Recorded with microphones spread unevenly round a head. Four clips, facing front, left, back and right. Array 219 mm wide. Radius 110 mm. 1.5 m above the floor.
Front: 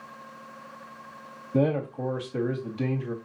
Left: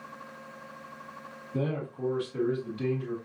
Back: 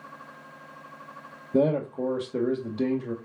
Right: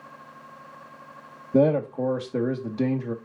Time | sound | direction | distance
1.5 | a man speaking | 115° right | 2 m